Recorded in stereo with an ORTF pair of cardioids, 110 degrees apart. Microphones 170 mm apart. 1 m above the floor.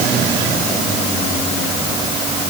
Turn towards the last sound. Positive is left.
No sound to turn to.